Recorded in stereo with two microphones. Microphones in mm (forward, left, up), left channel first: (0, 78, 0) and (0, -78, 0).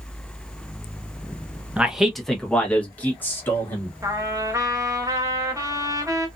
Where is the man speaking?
10° right (ahead or behind), 0.6 m; by 3.9 s 15° left (ahead or behind), 1.6 m.